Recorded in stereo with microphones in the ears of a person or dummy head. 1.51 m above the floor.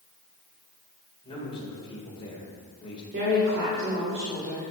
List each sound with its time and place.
1.2 s a man speaking: 25° left (ahead or behind), 2 m
3.1 s a woman speaking: 60° right (ahead or behind), 1.5 m